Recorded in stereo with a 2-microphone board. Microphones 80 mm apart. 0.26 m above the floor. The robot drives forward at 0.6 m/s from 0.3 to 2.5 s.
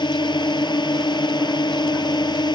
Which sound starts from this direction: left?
A drone, at 0.0 s.